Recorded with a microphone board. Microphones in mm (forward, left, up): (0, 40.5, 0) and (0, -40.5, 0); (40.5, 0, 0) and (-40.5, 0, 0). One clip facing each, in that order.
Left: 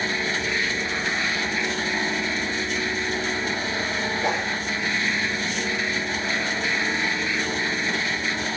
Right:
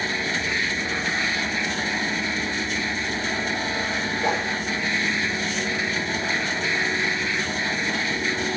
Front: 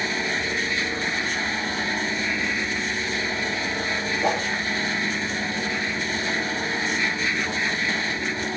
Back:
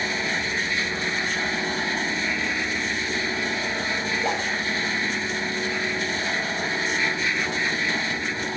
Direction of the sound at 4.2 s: 20° left.